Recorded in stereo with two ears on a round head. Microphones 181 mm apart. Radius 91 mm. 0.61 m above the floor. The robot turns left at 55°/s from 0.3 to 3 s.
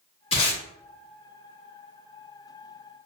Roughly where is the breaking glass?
I don't hear breaking glass.